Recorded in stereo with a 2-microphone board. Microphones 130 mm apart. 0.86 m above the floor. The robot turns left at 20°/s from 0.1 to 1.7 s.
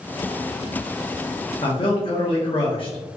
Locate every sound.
1.6 s a man speaking: 45° left (ahead or behind), 0.9 m; by 3.2 s 40° left (ahead or behind), 0.9 m